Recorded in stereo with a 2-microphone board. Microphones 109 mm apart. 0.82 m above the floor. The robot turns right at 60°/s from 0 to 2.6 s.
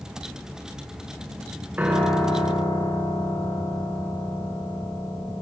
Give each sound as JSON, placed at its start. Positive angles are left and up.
{"t": 1.8, "sound": "a piano", "azimuth_deg": -15, "distance_m": 5.5}